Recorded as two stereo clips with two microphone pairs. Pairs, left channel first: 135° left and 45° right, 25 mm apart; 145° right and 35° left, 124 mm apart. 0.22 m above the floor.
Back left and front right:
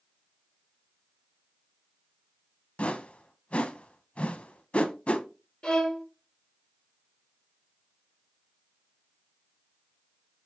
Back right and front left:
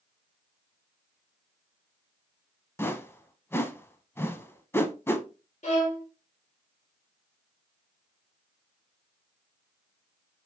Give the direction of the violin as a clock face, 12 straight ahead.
6 o'clock.